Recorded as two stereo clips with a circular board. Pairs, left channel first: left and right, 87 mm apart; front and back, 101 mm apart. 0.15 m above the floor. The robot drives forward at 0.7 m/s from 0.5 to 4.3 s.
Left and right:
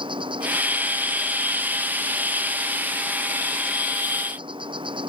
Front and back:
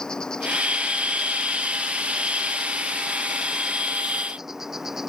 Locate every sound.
0.0 s an insect: 85° right; by 5.1 s 95° right